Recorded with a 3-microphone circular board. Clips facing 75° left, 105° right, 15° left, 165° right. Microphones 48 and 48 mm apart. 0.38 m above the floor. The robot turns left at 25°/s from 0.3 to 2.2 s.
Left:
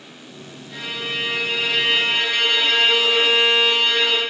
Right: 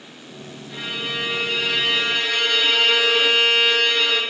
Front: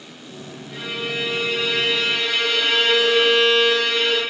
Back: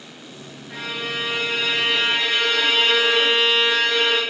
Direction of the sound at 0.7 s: 175° left.